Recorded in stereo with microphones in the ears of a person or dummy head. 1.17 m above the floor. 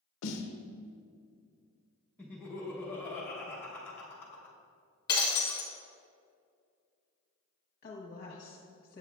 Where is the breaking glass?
25° left (ahead or behind), 0.9 m.